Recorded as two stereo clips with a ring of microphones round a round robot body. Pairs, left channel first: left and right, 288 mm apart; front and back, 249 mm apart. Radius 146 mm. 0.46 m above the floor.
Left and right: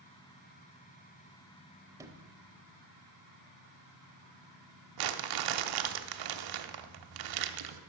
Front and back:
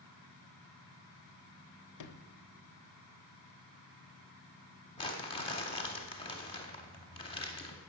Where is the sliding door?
10° right, 0.7 m.